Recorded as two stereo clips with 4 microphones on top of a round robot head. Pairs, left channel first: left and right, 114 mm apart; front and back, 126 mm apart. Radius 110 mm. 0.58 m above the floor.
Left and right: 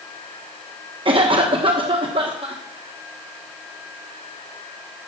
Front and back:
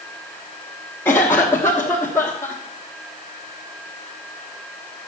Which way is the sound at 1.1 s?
70° right.